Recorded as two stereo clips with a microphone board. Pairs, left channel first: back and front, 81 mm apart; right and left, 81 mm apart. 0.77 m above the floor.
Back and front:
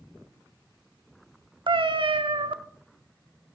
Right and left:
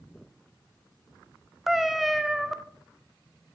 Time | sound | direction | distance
1.7 | a cat meowing | straight ahead | 0.7 m